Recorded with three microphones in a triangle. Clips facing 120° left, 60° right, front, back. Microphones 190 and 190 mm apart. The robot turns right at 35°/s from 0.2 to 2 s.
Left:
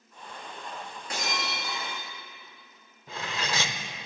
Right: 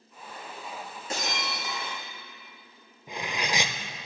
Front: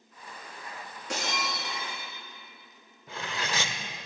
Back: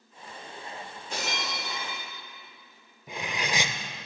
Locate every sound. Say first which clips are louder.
1.1 s breaking glass: right 1 dB, front 1 dB; 5° left, 5 m; by 2.0 s 35° left, 5 m
3.1 s cutlery clinking: right 2 dB, back 2 dB; 120° right, 0.6 m